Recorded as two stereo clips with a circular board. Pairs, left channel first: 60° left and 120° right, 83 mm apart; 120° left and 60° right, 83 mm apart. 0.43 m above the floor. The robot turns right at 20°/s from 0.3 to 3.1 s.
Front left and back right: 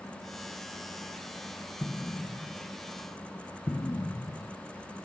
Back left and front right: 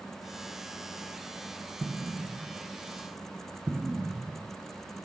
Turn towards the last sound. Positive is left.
turn(degrees=25)